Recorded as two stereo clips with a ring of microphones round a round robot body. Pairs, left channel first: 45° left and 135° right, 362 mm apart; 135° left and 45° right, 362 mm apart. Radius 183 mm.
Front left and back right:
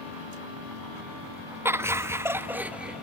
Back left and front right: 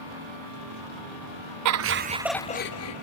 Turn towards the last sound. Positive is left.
turn(degrees=140)